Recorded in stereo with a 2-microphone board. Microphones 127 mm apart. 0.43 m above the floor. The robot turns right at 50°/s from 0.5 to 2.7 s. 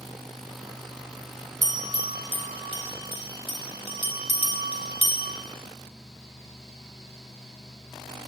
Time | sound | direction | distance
1.6 | a bell | 30° right (ahead or behind) | 1.3 m